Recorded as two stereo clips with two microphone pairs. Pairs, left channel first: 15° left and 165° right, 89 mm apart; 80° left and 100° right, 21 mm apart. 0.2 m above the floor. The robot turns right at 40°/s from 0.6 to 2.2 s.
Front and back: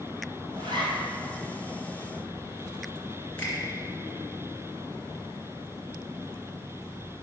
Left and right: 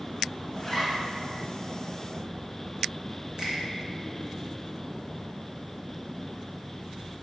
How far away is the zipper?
About 2.5 m.